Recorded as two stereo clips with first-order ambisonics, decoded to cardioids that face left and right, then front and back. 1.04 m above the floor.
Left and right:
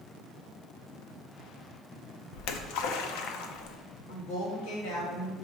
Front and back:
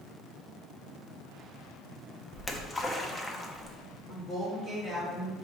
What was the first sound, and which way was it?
A splash, 80° left.